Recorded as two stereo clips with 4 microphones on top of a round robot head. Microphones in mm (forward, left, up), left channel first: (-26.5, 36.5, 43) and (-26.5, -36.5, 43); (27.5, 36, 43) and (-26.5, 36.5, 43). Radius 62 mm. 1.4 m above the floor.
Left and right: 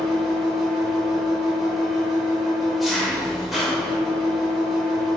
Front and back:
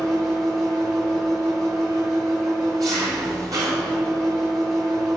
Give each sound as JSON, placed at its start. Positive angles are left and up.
{"t": 0.0, "sound": "an engine running", "azimuth_deg": 180, "distance_m": 1.9}